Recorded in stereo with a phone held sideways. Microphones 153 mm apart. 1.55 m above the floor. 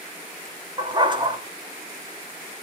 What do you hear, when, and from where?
0.8 s a dog barking: 30° right (ahead or behind), 1.1 m